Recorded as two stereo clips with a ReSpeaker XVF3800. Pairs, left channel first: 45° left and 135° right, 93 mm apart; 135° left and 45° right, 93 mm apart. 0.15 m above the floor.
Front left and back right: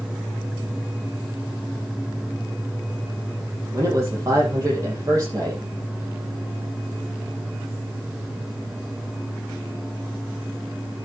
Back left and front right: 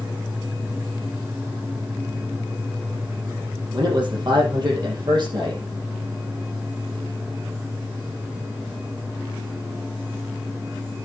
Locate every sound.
3.7 s a man speaking: 80° right, 6 m